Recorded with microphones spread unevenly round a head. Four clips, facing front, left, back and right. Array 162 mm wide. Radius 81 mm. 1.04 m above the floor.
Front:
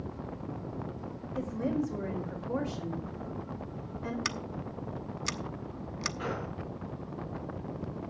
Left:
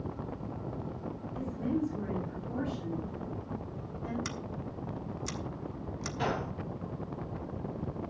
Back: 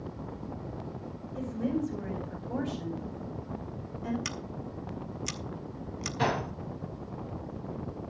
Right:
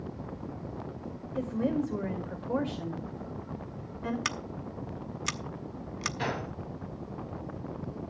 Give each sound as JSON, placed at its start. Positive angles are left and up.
{"t": 1.4, "sound": "a woman speaking", "azimuth_deg": -70, "distance_m": 5.0}
{"t": 4.2, "sound": "scissors", "azimuth_deg": -65, "distance_m": 1.0}
{"t": 6.2, "sound": "a gunshot", "azimuth_deg": 180, "distance_m": 2.0}